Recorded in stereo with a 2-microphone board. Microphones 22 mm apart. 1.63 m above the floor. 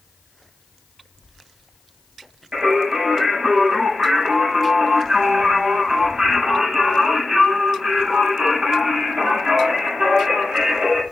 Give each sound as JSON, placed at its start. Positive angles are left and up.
{"t": 2.5, "sound": "singing", "side_deg": -55, "distance_m": 5.0}